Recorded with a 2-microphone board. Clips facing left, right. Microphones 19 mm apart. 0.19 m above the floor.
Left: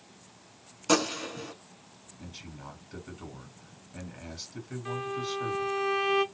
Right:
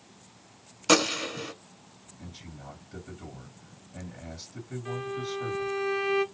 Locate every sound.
0.9 s a gunshot: 30° right (ahead or behind), 0.7 m
2.2 s a man speaking: 35° left (ahead or behind), 1.8 m
4.8 s a violin: 20° left (ahead or behind), 1.7 m